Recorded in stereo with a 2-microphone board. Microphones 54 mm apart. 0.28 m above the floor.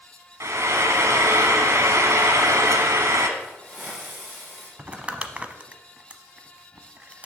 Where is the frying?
60° right (ahead or behind), 1.4 m.